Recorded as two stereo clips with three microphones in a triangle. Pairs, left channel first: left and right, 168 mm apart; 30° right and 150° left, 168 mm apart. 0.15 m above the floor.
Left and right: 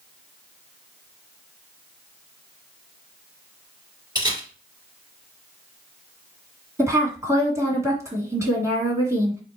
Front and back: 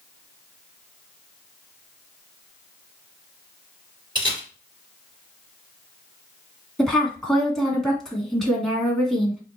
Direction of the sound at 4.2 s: 150° right.